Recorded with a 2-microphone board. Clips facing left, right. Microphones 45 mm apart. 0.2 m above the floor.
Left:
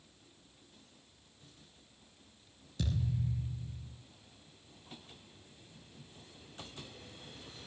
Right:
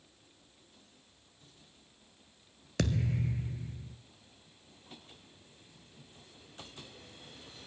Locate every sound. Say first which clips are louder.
2.8 s a thud: right 5 dB; 75° right (ahead or behind), 1.0 m